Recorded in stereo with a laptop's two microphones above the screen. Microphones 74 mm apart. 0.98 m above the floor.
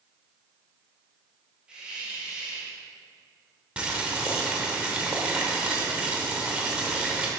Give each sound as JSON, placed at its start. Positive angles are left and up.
{"t": 1.7, "sound": "a hiss", "side_deg": -15, "distance_m": 1.3}
{"t": 3.8, "sound": "boiling", "side_deg": -15, "distance_m": 1.0}